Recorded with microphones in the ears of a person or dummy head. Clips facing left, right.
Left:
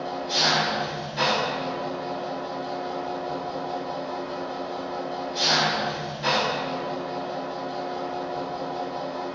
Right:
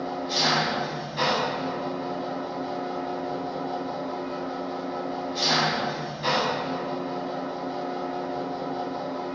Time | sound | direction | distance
0.0 | an engine running | 5° left (ahead or behind) | 0.8 m